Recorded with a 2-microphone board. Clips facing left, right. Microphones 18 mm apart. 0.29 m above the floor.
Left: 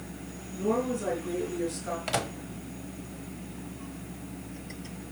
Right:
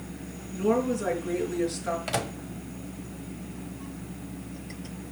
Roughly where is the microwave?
Centre.